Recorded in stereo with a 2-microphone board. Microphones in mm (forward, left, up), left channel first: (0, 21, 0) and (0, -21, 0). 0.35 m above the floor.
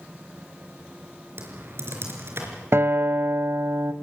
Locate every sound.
1.4 s typing on a keyboard: 60° right (ahead or behind), 4 m
2.7 s a guitar: 60° right (ahead or behind), 1.2 m